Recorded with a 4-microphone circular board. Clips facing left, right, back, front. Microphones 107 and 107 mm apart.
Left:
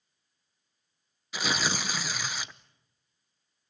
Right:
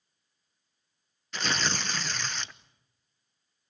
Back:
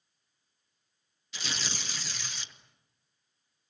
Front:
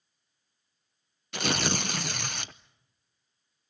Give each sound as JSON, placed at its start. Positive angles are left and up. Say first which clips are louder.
{"t": 1.3, "sound": "tearing paper", "louder": "left 1 dB, front 11 dB", "azimuth_deg": 10, "distance_m": 0.7}